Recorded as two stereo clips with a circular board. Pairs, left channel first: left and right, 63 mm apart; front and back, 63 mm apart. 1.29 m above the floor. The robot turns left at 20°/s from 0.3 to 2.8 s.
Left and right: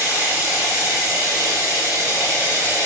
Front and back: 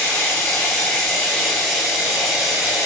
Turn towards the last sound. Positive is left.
turn(degrees=-115)